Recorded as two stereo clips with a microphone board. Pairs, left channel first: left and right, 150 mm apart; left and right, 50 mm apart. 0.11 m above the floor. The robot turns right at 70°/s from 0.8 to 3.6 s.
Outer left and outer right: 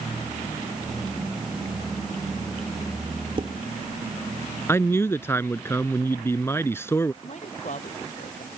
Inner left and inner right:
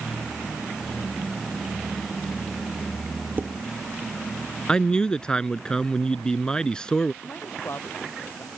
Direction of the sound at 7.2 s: 50° left (ahead or behind).